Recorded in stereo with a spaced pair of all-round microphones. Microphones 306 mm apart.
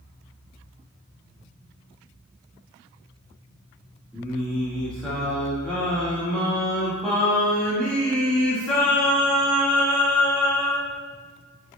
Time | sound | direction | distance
4.1 | singing | 5° left (ahead or behind) | 1.1 m